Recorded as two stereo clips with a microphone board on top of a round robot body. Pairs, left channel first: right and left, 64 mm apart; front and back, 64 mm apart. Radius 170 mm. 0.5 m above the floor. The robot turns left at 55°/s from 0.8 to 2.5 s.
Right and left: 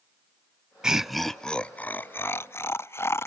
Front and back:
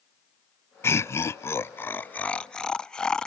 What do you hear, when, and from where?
0.8 s laughter: 20° left, 0.9 m; by 3.3 s 75° right, 0.9 m